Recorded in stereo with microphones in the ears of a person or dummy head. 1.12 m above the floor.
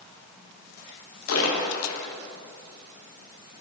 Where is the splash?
75° left (ahead or behind), 1.3 m.